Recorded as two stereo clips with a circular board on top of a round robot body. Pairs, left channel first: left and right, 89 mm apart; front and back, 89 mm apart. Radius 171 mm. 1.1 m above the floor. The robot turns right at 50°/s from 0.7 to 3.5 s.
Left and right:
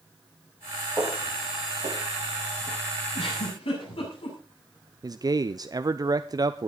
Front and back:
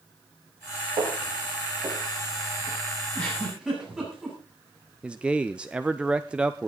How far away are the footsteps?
About 7.5 m.